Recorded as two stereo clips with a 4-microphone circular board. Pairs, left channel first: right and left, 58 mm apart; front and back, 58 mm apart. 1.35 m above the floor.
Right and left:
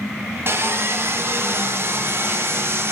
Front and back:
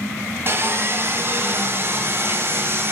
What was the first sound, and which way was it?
Sawing, 135° left.